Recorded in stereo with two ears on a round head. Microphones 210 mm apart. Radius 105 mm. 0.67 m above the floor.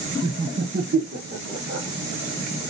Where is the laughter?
20° right (ahead or behind), 0.6 m; by 1.9 s 55° right (ahead or behind), 1.8 m.